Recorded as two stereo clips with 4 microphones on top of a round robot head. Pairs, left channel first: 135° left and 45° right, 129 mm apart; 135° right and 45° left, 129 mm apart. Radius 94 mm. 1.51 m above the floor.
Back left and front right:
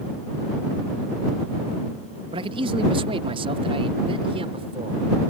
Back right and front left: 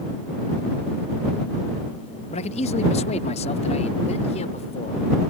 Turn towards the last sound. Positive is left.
turn(degrees=-95)